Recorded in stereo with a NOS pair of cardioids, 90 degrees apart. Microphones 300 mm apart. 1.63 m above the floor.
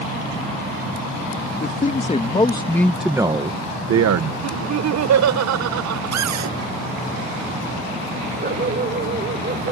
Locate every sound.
1.6 s a man speaking: 30° left; by 4.3 s 70° right
4.4 s laughter: 65° right
6.1 s a cupboard door: 65° right
8.4 s a dog barking: 35° right